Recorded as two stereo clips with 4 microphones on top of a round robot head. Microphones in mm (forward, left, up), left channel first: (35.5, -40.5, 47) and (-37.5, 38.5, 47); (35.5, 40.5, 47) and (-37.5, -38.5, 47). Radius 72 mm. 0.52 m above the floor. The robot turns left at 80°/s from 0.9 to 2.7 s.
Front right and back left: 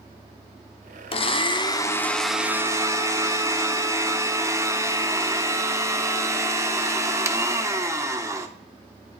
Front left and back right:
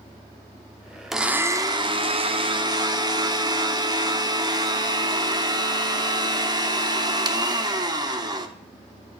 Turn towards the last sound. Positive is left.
turn(degrees=-170)